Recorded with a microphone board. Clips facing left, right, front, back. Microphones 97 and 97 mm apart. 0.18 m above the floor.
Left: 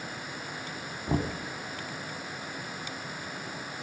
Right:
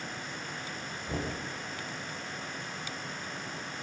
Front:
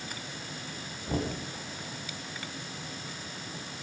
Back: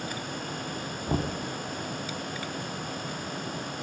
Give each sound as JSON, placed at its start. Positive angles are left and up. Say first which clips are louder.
{"t": 1.1, "sound": "knocking", "louder": "left 6 dB, back 2 dB", "azimuth_deg": 130, "distance_m": 3.0}